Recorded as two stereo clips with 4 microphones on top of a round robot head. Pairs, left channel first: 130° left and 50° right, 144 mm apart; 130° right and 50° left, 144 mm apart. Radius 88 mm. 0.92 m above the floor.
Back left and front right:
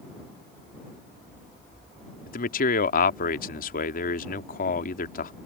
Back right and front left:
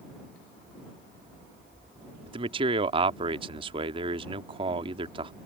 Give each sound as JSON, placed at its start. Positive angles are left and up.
{"t": 2.3, "sound": "a man speaking", "azimuth_deg": 105}